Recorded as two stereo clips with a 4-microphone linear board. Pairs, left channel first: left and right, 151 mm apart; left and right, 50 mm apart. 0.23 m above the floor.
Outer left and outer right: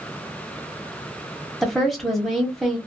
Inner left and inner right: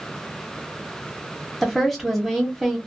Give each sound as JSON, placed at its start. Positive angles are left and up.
{"t": 1.6, "sound": "a woman speaking", "side_deg": 0, "distance_m": 1.0}